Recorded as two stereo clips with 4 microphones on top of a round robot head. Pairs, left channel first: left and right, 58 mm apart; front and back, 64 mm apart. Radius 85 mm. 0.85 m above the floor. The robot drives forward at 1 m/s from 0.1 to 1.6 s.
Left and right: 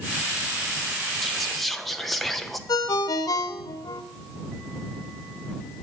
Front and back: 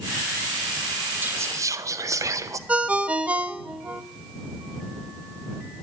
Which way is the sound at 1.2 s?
170° left.